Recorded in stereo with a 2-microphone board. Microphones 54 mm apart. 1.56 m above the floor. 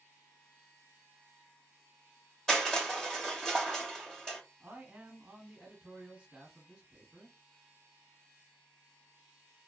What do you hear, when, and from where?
2.5 s crushing: 5° left (ahead or behind), 1.4 m
4.6 s a man speaking: 15° right (ahead or behind), 1.0 m